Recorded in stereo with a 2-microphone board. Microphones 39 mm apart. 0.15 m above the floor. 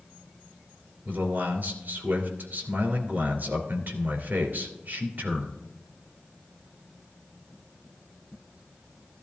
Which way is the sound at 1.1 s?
55° right (ahead or behind).